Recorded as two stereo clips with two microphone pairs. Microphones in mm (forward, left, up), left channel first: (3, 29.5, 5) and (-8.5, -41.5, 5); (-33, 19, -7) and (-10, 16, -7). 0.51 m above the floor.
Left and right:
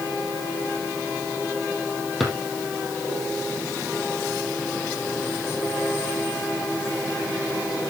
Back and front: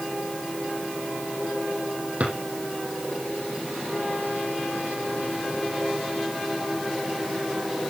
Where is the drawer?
10° right, 4 m.